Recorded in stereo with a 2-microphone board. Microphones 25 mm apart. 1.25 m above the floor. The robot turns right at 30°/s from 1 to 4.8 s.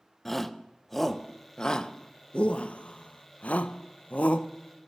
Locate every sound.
0.2 s a shout: 15° left (ahead or behind), 0.6 m; by 4.5 s 60° left (ahead or behind), 0.6 m